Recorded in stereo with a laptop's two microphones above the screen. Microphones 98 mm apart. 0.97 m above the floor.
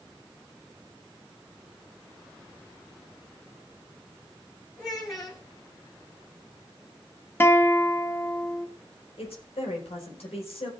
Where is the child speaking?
40° left (ahead or behind), 4.5 m.